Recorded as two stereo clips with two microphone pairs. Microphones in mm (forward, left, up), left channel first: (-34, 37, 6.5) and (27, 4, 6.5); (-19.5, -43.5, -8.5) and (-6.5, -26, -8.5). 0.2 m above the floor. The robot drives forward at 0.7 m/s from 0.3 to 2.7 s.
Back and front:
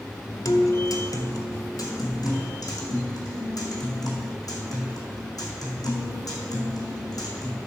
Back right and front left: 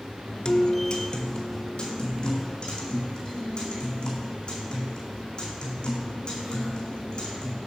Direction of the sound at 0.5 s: 175° right.